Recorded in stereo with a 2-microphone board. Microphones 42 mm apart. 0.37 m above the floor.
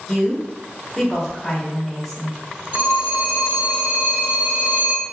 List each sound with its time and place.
0.1 s a woman speaking: 5° left (ahead or behind), 1.1 m
2.7 s a phone ringing: 35° right (ahead or behind), 1.5 m